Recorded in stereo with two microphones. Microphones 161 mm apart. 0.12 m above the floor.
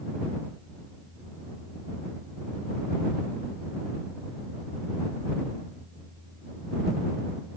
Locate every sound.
Only background noise.